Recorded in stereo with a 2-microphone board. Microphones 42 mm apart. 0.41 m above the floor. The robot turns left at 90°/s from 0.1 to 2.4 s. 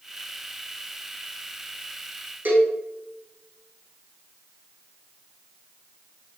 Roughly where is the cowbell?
Right.